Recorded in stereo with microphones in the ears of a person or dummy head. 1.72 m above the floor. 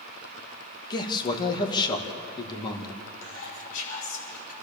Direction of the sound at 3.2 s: 50° left (ahead or behind).